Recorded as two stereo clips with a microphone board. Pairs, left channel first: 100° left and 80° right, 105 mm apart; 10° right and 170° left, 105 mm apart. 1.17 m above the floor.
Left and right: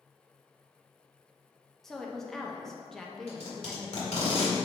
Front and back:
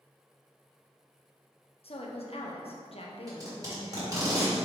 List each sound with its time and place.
1.8 s a woman speaking: 15° left, 0.9 m
3.3 s tape being pulled: 115° left, 1.9 m